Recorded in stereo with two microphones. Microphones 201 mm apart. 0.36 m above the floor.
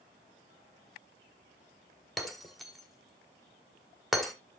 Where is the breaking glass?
Centre (ahead or behind), 1.5 m.